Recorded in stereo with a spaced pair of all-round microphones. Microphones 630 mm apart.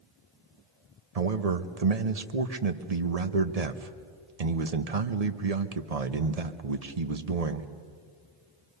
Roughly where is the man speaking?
Right.